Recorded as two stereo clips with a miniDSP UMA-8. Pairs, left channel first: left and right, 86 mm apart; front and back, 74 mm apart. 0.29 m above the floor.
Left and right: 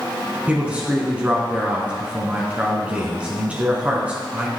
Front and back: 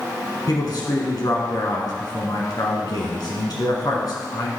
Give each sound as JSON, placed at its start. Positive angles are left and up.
{"t": 0.5, "sound": "a man speaking", "azimuth_deg": -15, "distance_m": 3.0}